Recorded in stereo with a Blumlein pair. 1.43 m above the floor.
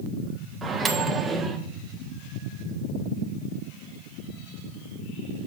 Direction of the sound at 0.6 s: 15° right.